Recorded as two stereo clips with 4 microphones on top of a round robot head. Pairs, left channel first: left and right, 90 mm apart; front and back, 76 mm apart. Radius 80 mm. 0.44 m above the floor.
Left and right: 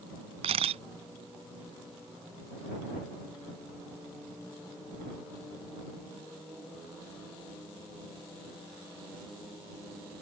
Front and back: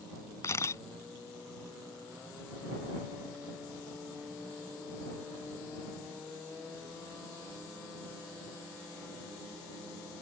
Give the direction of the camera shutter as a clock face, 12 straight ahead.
2 o'clock.